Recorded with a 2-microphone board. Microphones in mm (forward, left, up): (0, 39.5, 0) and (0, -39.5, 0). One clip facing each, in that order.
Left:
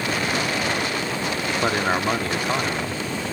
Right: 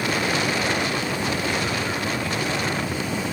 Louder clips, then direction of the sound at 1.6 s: Left 4 dB; 55° left (ahead or behind).